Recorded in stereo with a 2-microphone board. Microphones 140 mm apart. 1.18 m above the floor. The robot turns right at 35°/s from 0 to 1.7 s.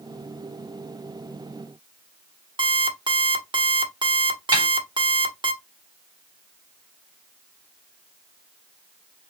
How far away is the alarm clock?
About 1.4 m.